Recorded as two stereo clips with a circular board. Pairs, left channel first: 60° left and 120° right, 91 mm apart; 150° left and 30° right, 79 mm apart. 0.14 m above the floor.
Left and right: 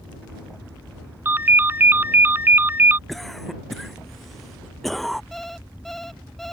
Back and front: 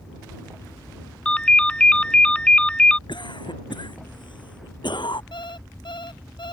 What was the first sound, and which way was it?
A ringtone, 150° right.